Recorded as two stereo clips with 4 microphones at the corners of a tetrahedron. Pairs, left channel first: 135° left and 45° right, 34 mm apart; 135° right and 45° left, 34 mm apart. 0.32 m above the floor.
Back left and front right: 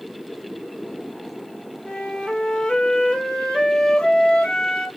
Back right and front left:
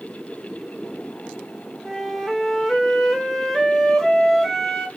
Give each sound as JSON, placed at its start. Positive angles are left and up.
{"t": 1.9, "sound": "a flute", "azimuth_deg": 160, "distance_m": 0.8}